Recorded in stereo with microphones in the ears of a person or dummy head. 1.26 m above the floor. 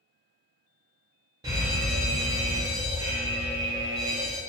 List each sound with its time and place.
1.4 s a fire alarm: 20° right (ahead or behind), 1.2 m